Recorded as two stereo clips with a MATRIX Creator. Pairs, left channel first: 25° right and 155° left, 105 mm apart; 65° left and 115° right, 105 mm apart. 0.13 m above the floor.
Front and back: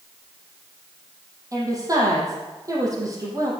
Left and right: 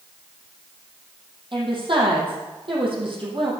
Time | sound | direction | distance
1.5 | a woman speaking | 145° right | 4.5 m